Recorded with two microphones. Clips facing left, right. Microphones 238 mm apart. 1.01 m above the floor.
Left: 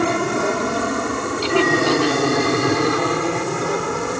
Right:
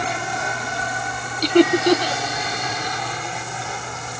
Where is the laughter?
40° right (ahead or behind).